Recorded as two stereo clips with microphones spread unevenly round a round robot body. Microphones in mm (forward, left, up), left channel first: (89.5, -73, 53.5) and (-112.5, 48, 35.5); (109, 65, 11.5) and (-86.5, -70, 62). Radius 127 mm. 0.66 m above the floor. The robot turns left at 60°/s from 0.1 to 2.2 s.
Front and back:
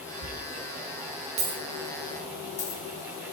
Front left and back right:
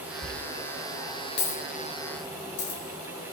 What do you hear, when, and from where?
0.2 s a dropped coin: 150° left, 5.5 m; by 2.8 s 35° left, 5.5 m